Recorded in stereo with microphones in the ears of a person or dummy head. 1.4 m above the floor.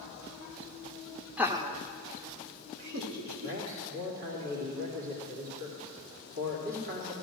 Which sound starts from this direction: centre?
Laughter, at 1.4 s.